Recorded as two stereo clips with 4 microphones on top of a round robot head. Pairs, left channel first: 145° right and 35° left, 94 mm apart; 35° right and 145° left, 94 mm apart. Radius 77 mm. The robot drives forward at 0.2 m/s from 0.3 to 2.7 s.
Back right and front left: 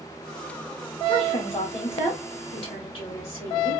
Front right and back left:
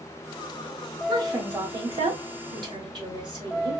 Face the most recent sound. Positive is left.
turn(degrees=-170)